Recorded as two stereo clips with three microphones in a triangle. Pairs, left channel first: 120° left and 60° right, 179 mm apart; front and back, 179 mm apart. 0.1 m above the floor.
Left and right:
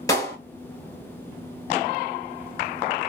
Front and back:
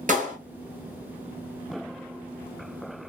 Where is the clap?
Straight behind, 1.6 m.